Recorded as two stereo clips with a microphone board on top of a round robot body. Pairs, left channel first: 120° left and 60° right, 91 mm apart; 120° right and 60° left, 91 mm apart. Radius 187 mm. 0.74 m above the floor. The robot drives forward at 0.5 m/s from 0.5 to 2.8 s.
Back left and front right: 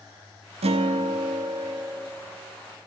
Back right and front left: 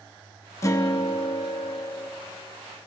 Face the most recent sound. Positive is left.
turn(degrees=-150)